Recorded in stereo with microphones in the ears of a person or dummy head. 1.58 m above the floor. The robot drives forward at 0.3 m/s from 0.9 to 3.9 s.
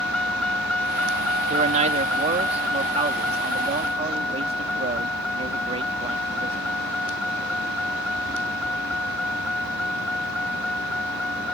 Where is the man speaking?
40° right (ahead or behind); by 6.7 s 35° right (ahead or behind).